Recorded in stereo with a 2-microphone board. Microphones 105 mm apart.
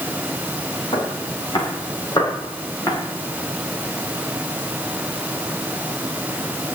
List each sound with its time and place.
0.9 s footsteps: 55° left (ahead or behind), 7 m; by 3.0 s 35° left (ahead or behind), 6.5 m